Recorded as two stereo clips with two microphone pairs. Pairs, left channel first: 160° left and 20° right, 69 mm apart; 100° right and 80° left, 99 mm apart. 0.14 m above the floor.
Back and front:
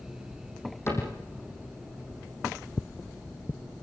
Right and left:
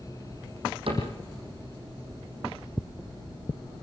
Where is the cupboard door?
105° left, 7 m.